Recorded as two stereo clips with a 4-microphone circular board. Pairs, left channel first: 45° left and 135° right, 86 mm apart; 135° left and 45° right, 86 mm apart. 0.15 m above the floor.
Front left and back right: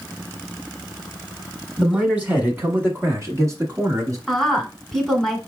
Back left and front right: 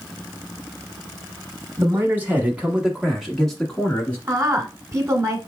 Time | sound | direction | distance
1.8 | a man speaking | 65° right | 1.4 m
4.3 | a woman speaking | 40° right | 1.3 m